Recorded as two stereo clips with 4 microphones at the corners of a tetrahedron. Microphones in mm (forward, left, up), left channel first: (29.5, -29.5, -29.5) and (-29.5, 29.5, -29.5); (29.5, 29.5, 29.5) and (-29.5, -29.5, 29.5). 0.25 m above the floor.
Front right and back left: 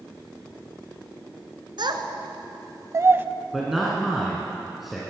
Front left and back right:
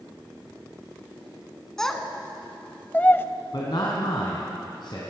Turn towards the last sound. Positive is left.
turn(degrees=50)